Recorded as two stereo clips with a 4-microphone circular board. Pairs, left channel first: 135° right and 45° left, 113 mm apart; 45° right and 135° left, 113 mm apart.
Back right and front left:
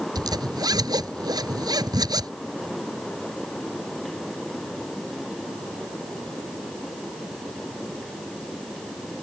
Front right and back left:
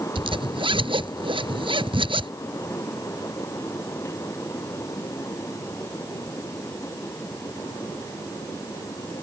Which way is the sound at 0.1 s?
100° left.